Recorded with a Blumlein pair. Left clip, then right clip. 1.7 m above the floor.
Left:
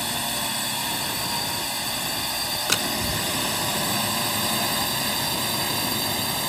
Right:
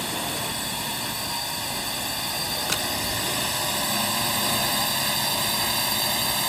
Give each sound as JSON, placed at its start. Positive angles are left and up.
{"t": 0.0, "sound": "a drone", "azimuth_deg": 10}
{"t": 2.7, "sound": "a door slam", "azimuth_deg": 15}